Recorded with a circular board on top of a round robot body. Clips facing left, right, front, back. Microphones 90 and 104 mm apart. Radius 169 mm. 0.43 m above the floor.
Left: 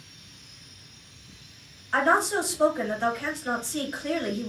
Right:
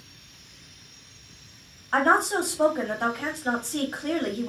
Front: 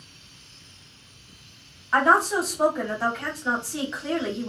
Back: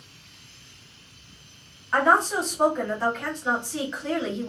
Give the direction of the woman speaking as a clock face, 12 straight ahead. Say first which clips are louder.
Right 1 dB, front 1 dB; 3 o'clock.